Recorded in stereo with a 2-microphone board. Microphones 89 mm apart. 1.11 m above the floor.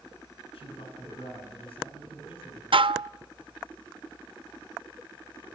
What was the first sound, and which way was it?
A man speaking, 85° left.